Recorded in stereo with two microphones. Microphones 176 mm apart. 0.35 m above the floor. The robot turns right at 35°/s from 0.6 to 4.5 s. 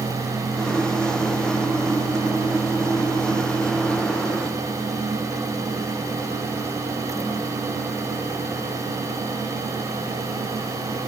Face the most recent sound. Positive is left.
No sound to turn to.